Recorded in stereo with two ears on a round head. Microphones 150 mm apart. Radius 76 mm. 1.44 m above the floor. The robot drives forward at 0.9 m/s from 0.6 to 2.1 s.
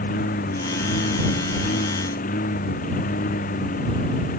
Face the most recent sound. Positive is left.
turn(degrees=55)  # may be behind; listen again after turning